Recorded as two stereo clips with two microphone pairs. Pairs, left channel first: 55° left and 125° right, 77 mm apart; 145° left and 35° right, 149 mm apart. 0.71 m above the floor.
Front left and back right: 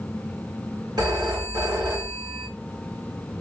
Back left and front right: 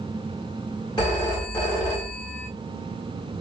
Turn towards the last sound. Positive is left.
turn(degrees=-155)